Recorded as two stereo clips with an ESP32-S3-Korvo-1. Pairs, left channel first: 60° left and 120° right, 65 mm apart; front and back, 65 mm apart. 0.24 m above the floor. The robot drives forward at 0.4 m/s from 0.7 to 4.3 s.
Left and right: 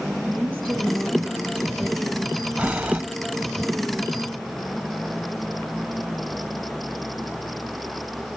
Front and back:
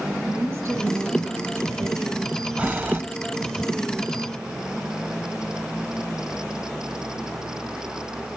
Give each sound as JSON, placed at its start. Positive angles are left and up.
{"t": 0.3, "sound": "a woman speaking", "azimuth_deg": 135, "distance_m": 3.5}
{"t": 2.6, "sound": "breathing", "azimuth_deg": -145, "distance_m": 0.7}